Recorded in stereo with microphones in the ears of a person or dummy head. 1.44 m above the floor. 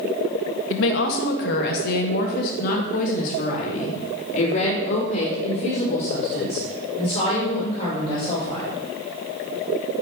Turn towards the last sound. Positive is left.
turn(degrees=35)  # may be behind; listen again after turning